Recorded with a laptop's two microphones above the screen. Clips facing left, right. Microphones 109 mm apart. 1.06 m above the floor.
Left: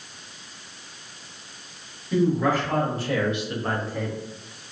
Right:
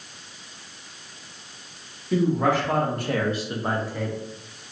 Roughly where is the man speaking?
Right.